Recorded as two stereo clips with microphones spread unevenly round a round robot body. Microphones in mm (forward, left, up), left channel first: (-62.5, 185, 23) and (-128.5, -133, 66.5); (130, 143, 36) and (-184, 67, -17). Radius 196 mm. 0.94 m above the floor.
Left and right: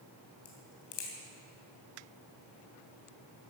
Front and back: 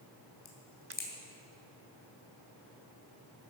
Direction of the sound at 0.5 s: 65° left.